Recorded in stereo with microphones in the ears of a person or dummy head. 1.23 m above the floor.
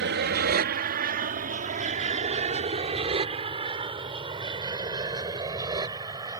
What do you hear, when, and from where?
0.0 s an aircraft: 55° right (ahead or behind); by 6.4 s 20° right (ahead or behind)